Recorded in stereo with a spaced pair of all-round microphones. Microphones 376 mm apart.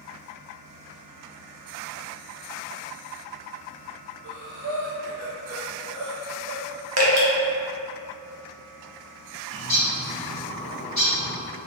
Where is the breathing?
30° right (ahead or behind), 0.7 m.